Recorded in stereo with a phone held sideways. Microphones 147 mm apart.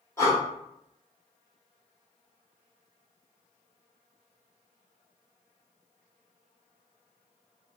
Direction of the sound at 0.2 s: 20° left (ahead or behind).